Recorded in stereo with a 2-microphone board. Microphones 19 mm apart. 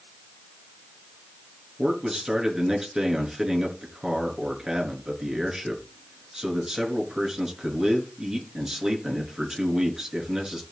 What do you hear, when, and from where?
1.8 s a man speaking: 35° right (ahead or behind), 5 m